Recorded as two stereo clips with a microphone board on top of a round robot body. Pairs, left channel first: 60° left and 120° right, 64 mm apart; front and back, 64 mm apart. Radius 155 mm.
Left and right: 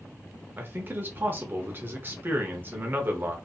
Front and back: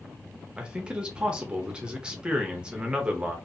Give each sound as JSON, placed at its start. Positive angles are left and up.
{"t": 0.6, "sound": "a man speaking", "azimuth_deg": -120, "distance_m": 0.9}